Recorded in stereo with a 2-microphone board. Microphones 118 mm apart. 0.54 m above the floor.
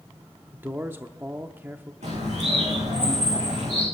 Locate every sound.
0.5 s a man speaking: 20° right (ahead or behind), 0.7 m
2.0 s a bird: 80° right, 7.5 m